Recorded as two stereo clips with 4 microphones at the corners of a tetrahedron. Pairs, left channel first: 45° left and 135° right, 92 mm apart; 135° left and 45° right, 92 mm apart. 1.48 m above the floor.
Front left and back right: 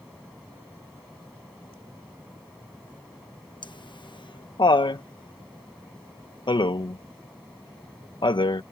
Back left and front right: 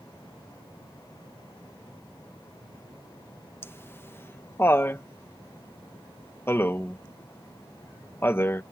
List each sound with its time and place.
3.6 s laughter: 70° left